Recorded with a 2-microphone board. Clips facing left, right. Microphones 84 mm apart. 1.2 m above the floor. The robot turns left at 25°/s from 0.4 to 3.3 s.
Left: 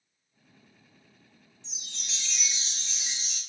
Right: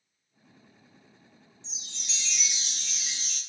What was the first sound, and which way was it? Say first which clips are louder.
A chime: left 2 dB; 60° left.